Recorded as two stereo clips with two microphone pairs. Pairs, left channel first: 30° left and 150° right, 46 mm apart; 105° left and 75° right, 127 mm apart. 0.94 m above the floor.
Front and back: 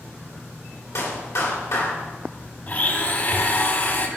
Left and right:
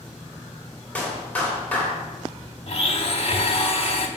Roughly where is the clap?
Ahead left.